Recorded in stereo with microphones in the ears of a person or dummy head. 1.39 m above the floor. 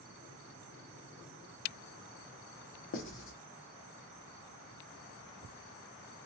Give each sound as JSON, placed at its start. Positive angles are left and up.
{"t": 2.9, "sound": "writing", "side_deg": 60, "distance_m": 0.5}